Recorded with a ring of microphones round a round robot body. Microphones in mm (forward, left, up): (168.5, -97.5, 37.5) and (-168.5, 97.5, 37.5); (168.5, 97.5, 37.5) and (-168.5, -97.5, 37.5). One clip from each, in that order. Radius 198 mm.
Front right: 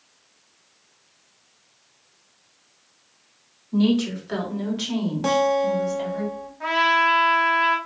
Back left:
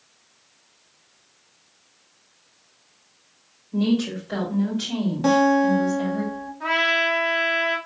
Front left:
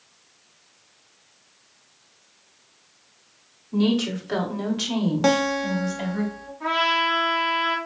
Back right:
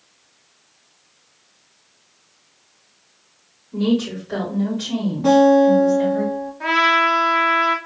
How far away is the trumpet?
About 1.1 m.